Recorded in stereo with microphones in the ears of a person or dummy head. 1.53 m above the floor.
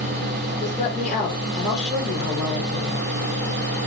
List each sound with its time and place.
0.6 s a woman speaking: centre (ahead or behind), 4 m